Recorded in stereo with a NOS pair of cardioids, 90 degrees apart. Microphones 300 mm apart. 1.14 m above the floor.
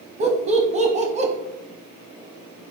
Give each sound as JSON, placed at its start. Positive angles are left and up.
{"t": 0.2, "sound": "laughter", "azimuth_deg": -35, "distance_m": 0.7}